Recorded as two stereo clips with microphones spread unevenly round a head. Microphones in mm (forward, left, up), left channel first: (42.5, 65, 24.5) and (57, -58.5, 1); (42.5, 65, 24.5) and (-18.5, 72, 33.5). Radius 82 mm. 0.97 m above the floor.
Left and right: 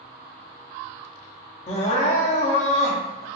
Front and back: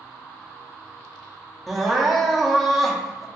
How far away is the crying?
About 0.6 m.